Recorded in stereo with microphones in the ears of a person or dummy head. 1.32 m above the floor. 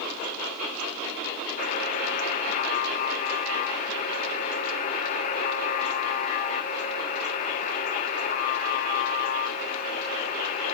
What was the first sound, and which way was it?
A buzzer, 50° left (ahead or behind).